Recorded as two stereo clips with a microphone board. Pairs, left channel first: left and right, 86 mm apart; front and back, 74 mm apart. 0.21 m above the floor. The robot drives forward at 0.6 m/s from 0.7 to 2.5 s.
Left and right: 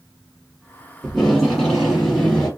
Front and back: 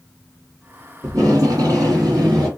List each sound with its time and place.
1.0 s tape being pulled: 175° left, 2 m